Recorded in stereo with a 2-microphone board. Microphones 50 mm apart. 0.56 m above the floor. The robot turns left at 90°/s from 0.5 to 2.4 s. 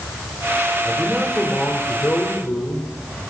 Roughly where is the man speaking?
Behind right.